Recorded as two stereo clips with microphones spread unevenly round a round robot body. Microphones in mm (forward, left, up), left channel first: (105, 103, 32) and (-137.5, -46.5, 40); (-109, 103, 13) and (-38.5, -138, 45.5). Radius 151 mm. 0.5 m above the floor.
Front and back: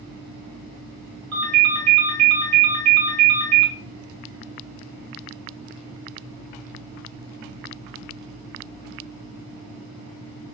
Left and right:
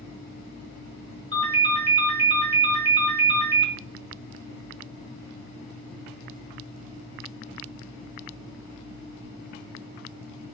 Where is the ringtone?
175° left, 1.3 m.